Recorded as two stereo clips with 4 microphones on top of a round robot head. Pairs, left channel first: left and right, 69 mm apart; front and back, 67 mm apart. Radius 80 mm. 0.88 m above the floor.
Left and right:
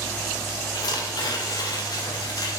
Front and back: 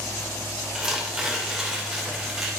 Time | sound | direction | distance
0.8 | tearing paper | 100° left | 3 m